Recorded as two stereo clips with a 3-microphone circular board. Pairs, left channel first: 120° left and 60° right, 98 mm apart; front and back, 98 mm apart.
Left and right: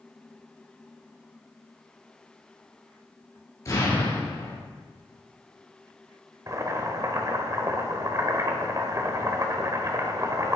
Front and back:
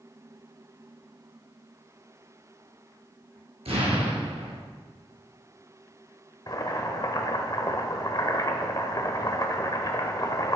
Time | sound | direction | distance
3.6 | an explosion | 175° left | 3.5 m
6.5 | boiling | 25° right | 1.2 m